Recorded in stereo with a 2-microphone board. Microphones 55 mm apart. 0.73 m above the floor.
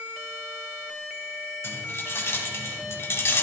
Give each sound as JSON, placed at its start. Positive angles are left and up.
{"t": 1.6, "sound": "keys jangling", "side_deg": 55, "distance_m": 3.0}